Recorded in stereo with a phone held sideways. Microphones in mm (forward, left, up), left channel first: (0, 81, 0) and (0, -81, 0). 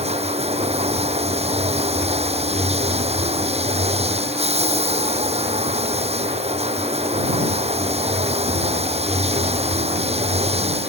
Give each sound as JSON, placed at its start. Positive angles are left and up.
{"t": 0.0, "sound": "running water", "side_deg": -40}